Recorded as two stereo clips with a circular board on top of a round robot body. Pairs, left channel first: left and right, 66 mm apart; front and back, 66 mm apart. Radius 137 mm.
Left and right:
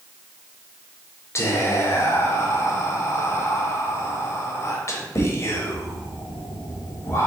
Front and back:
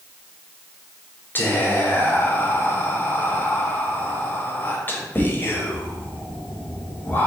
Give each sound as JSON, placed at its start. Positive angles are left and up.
{"t": 1.4, "sound": "whispering", "azimuth_deg": 55, "distance_m": 1.0}